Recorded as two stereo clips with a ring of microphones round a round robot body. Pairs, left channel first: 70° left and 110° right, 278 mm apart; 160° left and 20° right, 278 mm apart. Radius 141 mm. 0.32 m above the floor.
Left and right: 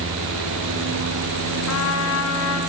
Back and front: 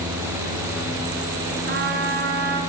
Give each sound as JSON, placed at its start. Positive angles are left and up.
{"t": 1.7, "sound": "a trumpet", "azimuth_deg": 30, "distance_m": 5.0}